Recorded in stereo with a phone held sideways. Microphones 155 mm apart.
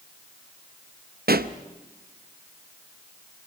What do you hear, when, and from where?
1.3 s a pop: 80° right, 0.7 m